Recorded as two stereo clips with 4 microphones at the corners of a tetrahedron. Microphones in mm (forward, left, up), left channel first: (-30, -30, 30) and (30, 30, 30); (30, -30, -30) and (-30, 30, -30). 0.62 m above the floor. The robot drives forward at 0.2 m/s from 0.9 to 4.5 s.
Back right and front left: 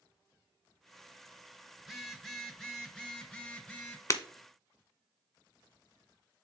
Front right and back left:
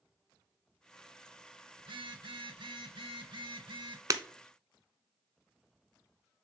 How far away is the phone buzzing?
About 0.7 m.